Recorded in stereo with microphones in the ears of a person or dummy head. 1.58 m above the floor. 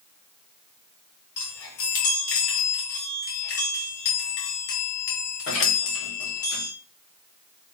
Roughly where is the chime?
Left.